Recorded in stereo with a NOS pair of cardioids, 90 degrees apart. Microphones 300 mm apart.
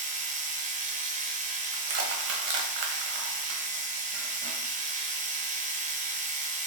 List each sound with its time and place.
0.0 s a machine running: 25° right, 0.7 m
1.7 s crushing: 50° right, 1.0 m